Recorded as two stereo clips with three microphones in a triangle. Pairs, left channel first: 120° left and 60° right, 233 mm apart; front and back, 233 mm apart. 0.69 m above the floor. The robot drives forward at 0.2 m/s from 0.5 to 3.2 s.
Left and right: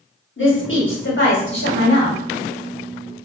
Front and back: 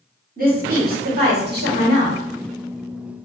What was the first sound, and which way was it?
A woman speaking, 135° left.